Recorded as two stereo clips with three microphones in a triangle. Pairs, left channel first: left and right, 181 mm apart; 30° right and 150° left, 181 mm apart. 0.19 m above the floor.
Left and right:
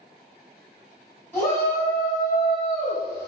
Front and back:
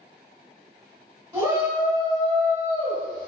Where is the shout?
135° left, 1.7 m; by 3.3 s 150° left, 2 m.